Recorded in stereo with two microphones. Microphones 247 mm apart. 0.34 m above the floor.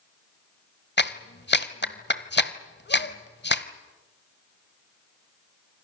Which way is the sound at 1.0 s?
45° left (ahead or behind).